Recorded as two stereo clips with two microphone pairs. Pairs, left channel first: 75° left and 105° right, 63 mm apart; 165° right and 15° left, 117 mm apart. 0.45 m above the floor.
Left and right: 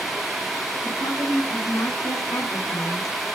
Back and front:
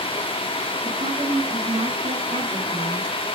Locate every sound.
0.8 s a woman speaking: 45° left, 5 m